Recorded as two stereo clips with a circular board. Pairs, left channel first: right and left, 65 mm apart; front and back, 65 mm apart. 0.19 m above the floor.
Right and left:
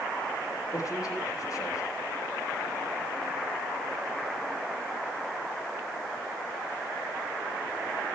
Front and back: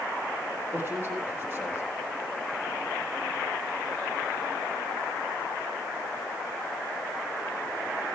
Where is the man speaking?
120° right, 7.5 m.